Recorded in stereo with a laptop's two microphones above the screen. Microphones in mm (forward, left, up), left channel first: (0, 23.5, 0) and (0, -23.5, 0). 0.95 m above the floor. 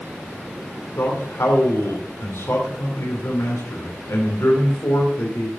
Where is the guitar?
No guitar in this recording.